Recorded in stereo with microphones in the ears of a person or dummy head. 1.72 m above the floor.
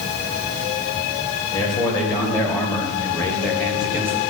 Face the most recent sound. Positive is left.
turn(degrees=-20)  # may be behind; listen again after turning